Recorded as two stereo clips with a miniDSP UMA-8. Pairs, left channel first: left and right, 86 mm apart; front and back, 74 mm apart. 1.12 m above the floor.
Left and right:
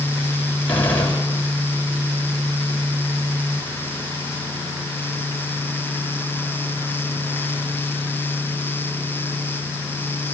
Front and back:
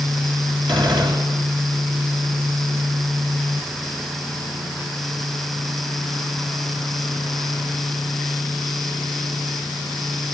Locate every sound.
0.7 s a gunshot: 160° left, 6 m